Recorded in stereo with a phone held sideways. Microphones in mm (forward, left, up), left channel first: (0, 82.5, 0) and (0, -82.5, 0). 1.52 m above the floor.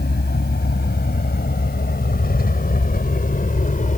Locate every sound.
0.0 s a vehicle: 70° left (ahead or behind); by 4.0 s 50° left (ahead or behind)